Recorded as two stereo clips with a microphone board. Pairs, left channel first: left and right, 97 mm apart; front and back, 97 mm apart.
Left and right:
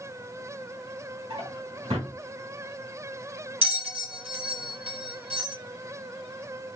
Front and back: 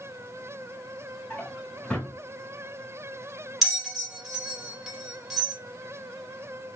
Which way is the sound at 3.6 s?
90° right.